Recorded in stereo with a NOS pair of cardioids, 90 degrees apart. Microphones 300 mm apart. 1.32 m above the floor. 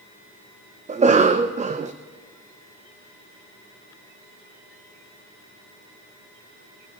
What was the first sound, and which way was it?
A cough, 25° right.